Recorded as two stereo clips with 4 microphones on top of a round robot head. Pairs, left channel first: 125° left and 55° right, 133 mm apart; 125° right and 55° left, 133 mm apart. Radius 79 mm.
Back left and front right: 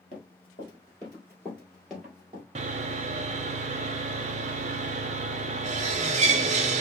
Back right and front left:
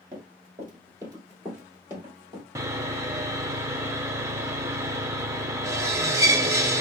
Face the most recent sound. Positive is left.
turn(degrees=-15)